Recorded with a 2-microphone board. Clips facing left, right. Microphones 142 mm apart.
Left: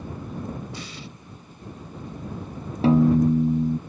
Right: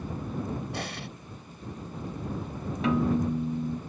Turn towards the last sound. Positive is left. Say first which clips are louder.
# left 8 dB
turn(degrees=35)  # may be behind; listen again after turning